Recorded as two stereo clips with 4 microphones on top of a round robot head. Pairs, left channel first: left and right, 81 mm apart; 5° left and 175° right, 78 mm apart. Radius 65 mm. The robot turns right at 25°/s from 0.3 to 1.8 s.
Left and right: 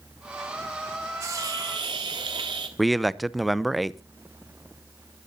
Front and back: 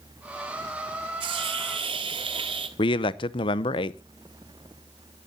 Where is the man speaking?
Straight ahead, 0.7 m.